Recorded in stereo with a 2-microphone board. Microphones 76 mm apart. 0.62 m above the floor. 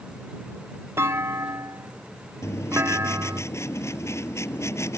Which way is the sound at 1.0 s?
35° right (ahead or behind).